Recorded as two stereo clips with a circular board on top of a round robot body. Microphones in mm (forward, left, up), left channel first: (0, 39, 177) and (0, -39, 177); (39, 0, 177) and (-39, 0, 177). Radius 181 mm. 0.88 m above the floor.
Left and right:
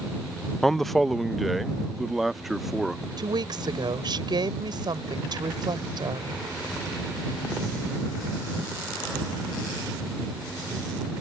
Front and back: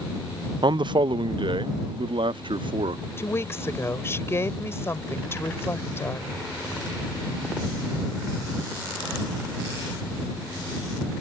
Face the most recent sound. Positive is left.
turn(degrees=-60)